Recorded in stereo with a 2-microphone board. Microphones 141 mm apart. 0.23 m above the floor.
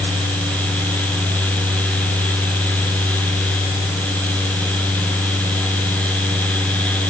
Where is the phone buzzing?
I don't hear a phone buzzing.